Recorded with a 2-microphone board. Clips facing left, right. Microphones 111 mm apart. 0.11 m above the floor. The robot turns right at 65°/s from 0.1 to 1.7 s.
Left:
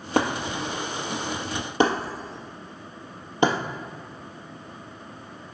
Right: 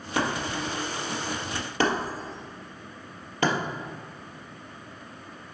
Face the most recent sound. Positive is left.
turn(degrees=20)  # may be behind; listen again after turning